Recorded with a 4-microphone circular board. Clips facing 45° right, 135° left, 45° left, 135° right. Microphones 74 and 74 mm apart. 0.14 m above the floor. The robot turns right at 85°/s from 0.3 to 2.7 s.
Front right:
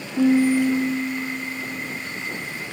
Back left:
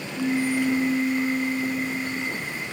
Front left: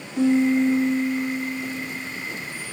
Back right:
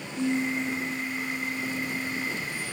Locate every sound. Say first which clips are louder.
0.2 s a piano: front right 7 dB, front left 9 dB; straight ahead, 0.5 m; by 2.3 s 170° left, 0.5 m